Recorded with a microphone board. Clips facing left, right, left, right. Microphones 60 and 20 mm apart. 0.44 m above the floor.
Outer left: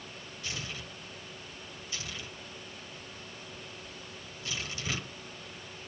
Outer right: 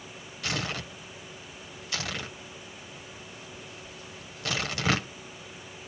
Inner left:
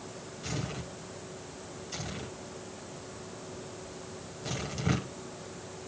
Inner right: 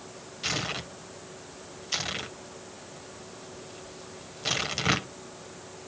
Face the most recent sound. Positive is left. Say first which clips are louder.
# outer right 9 dB, inner right 7 dB
turn(degrees=-80)